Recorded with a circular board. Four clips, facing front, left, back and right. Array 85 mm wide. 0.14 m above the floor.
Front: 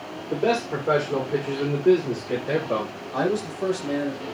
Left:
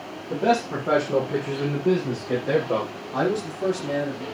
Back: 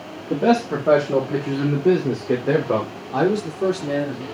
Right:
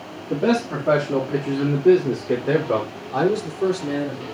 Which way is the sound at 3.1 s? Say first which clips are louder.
Right 4 dB, back 5 dB; 160° right.